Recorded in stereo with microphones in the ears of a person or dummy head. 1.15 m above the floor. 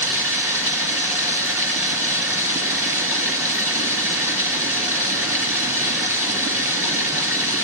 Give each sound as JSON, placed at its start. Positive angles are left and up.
{"t": 0.0, "sound": "running water", "side_deg": -15, "distance_m": 4.0}